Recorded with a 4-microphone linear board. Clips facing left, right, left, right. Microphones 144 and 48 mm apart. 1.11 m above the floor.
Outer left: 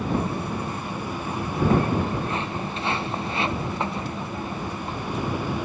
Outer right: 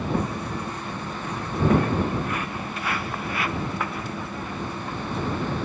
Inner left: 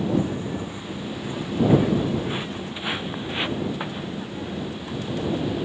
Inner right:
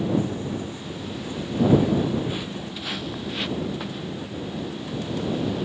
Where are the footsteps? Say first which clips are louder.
Outer left 1 dB, inner left 1 dB; 30° left (ahead or behind); by 5.5 s 25° left (ahead or behind).